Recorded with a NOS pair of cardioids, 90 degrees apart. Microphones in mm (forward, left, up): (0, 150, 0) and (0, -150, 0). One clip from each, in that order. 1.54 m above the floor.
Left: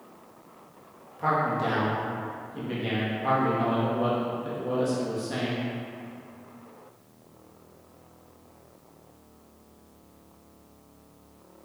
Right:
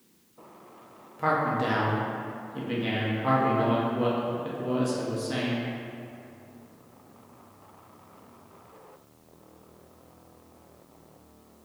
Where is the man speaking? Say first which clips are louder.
Even; 15° right, 0.7 m.